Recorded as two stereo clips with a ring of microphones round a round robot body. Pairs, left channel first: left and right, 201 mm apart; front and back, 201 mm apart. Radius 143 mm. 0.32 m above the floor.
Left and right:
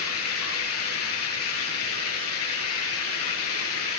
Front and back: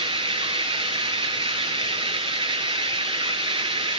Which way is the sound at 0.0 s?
115° left.